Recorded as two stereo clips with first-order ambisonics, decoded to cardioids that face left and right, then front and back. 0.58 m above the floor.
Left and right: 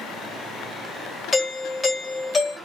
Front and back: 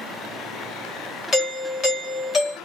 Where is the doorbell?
30° left, 1.7 m.